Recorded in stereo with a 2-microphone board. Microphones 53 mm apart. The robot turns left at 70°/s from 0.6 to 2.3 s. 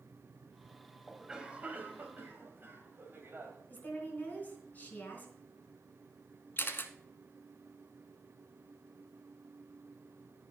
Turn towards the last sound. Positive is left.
turn(degrees=45)  # may be behind; listen again after turning